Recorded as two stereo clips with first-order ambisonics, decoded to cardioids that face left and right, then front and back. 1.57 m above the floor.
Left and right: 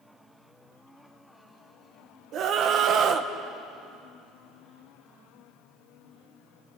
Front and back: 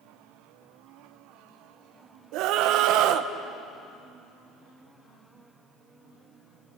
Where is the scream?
145° right, 1.3 m.